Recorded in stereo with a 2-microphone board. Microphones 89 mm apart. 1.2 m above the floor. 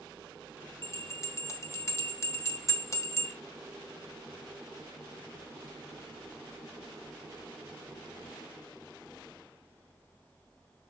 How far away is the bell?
About 1.3 m.